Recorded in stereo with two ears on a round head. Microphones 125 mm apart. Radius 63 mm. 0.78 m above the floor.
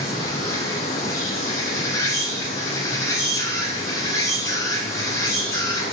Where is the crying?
I don't hear crying.